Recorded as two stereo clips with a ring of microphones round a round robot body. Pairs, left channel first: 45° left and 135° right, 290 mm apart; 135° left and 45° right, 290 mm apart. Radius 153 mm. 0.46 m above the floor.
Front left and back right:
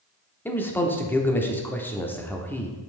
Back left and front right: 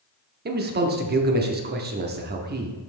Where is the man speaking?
35° right, 0.8 m.